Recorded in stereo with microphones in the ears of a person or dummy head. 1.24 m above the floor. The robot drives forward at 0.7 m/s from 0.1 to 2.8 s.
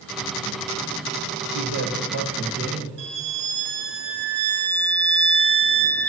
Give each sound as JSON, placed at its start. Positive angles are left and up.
{"t": 1.4, "sound": "a man speaking", "side_deg": -75, "distance_m": 1.3}
{"t": 3.0, "sound": "a violin", "side_deg": -55, "distance_m": 0.9}